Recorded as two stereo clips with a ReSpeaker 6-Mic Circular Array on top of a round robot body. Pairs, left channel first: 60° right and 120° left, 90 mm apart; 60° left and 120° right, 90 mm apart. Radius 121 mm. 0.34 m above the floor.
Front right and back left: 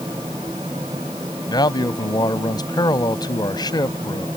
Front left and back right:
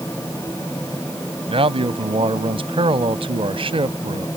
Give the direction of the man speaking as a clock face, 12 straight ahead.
3 o'clock.